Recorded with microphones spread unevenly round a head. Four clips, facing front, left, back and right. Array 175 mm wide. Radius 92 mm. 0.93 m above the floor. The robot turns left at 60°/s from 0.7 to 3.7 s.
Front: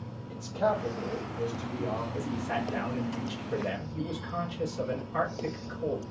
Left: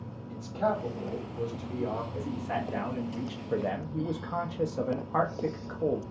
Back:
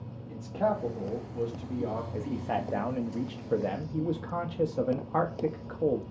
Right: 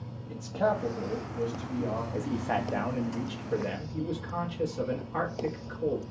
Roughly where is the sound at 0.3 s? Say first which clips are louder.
Right 1 dB, even; behind right.